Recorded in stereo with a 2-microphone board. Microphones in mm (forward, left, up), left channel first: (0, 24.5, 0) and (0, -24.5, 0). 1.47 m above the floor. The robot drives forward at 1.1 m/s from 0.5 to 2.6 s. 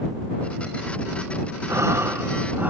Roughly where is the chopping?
I don't hear chopping.